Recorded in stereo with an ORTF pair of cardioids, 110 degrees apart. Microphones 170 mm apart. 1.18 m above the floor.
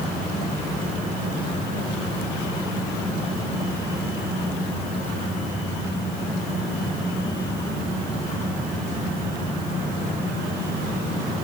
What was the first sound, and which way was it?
Only background noise.